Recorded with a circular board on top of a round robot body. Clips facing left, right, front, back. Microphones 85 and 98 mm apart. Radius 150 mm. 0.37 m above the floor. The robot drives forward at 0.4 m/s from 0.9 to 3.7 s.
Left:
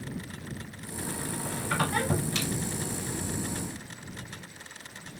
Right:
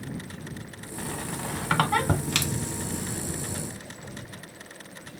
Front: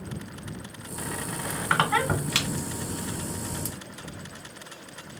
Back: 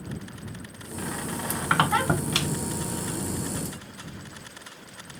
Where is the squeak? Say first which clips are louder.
Right 1 dB, back 2 dB; 90° right, 1.3 m; by 3.2 s 125° right, 1.5 m.